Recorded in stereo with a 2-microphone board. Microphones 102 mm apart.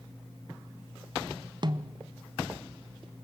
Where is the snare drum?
45° right (ahead or behind), 0.9 m.